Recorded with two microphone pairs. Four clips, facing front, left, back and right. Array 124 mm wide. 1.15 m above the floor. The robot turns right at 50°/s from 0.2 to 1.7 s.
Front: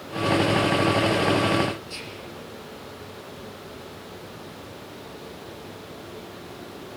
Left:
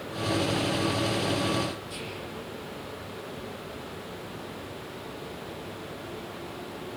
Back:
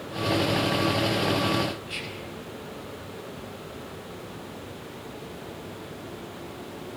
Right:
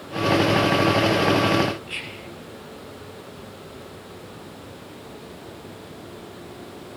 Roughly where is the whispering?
Behind right.